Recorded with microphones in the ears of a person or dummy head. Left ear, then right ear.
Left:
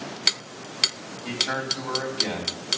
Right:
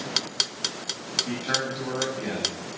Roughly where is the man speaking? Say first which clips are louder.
Left 2 dB; left.